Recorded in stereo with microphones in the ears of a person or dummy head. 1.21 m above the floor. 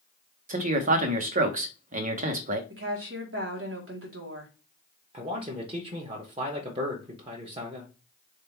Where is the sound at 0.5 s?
50° right (ahead or behind), 0.9 m.